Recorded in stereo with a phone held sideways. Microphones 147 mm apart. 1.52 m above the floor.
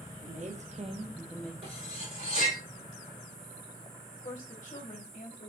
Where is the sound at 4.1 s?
60° left (ahead or behind), 1.3 m.